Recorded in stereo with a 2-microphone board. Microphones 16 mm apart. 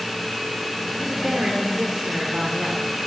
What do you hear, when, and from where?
1.0 s a woman speaking: 80° right, 2 m